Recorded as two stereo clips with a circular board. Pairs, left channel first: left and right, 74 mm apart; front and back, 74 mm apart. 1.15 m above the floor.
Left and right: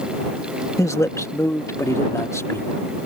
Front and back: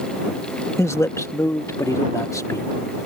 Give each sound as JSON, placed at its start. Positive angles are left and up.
{"t": 0.8, "sound": "a man speaking", "azimuth_deg": 45}